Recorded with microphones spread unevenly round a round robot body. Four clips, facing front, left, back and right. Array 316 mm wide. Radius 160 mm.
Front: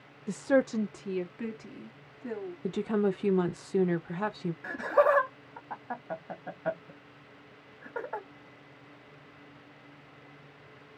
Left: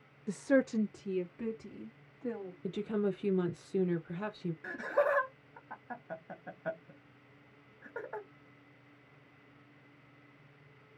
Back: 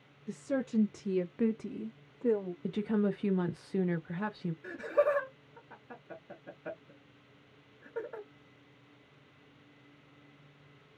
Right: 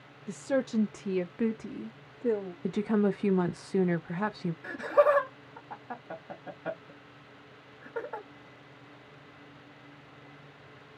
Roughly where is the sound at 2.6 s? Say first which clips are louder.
Right 6 dB, front 4 dB; ahead right.